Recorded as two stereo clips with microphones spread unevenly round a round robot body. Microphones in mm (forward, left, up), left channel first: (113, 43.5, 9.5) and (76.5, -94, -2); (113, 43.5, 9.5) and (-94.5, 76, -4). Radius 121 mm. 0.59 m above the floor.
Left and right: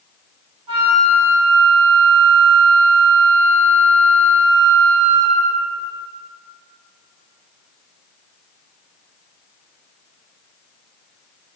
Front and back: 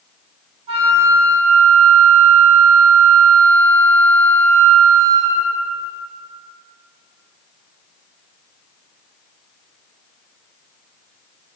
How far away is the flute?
About 0.9 m.